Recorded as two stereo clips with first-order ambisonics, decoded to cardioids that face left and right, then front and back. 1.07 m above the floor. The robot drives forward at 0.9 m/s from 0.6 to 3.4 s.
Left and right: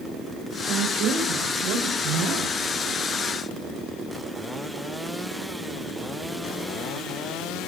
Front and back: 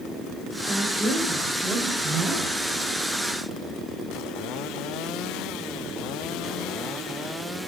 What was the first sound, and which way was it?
A woman speaking, 105° right.